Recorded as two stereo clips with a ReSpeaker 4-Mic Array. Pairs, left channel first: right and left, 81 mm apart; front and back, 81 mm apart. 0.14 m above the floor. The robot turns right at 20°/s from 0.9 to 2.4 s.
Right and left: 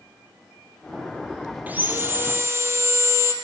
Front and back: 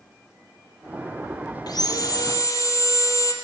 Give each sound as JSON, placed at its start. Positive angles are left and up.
{"t": 1.7, "sound": "sawing", "azimuth_deg": 20, "distance_m": 2.0}